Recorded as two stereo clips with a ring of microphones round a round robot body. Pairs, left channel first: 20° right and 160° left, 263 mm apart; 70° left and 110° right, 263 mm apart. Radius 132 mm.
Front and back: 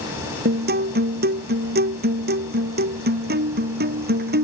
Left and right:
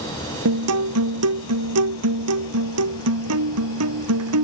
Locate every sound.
0.5 s a guitar: 145° right